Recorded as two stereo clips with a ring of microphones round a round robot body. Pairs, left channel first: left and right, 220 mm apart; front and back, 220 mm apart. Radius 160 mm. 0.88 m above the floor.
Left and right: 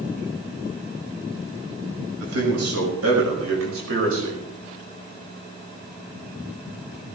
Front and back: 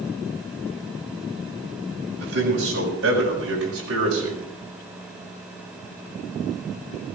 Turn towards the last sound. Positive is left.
turn(degrees=-135)